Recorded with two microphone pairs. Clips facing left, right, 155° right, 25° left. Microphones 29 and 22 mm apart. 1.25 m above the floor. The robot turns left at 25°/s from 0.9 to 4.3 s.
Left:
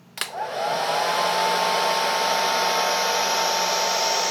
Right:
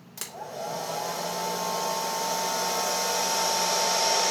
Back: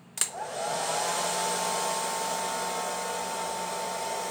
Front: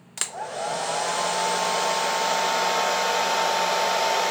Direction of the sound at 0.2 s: 95° left.